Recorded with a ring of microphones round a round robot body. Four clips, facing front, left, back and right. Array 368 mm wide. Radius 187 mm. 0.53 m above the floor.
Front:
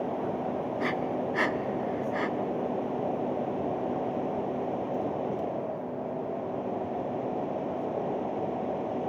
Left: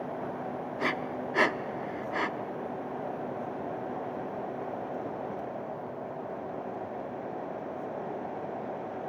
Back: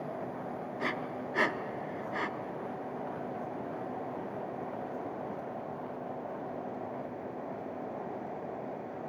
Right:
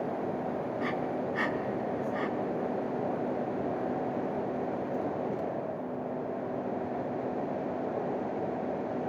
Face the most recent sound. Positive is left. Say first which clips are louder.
# left 2 dB, front 4 dB
turn(degrees=90)